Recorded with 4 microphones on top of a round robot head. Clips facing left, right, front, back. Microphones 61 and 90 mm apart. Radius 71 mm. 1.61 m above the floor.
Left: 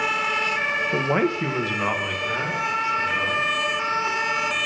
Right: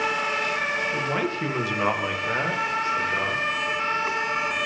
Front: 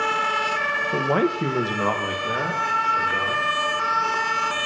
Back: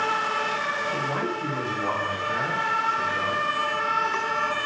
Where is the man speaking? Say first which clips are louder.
Left 4 dB, front 6 dB; 50° left, 1.1 m; by 3.4 s 35° right, 4 m.